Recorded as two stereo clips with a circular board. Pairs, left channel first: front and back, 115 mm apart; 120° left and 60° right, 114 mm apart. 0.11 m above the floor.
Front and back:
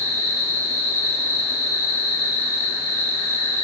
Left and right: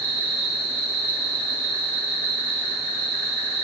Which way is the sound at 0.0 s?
15° left.